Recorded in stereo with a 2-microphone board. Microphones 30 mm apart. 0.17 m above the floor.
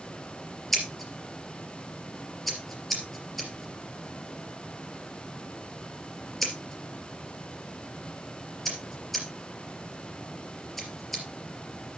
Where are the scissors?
5° left (ahead or behind), 3.5 m.